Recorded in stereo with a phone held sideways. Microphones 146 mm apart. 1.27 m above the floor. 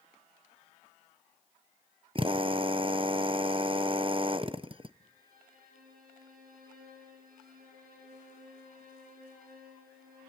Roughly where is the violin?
Right.